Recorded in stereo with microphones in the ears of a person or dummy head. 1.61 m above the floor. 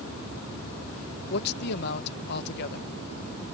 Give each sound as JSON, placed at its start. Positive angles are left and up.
{"t": 1.3, "sound": "a man speaking", "side_deg": 60}